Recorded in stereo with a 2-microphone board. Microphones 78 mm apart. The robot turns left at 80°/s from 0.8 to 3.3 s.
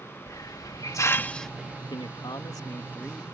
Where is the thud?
I don't hear a thud.